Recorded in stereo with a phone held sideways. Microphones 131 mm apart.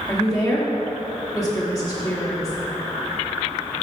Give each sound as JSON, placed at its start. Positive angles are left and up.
{"t": 0.1, "sound": "a woman speaking", "side_deg": 30, "distance_m": 2.5}